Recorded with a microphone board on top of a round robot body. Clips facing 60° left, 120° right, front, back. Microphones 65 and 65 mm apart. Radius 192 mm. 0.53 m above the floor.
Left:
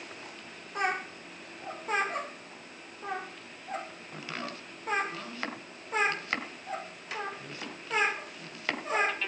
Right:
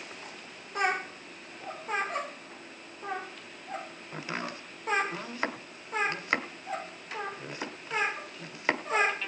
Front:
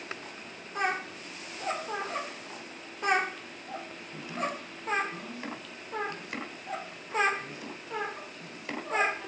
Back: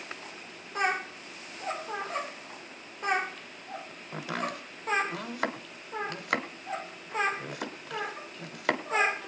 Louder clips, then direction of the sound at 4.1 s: Right 3 dB, back 1 dB; 170° left.